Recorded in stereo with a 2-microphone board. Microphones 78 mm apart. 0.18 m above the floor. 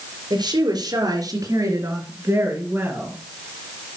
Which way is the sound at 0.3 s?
65° right (ahead or behind).